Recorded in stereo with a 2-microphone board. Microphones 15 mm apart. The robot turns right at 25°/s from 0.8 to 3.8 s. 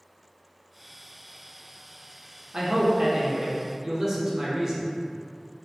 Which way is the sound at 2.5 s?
80° right.